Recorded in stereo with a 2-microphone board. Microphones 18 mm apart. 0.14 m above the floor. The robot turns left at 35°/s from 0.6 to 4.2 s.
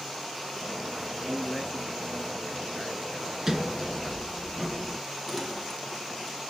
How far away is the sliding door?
About 0.9 m.